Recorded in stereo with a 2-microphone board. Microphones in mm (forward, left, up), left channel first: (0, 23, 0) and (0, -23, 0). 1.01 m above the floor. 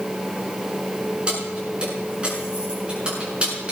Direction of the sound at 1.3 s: 25° right (ahead or behind).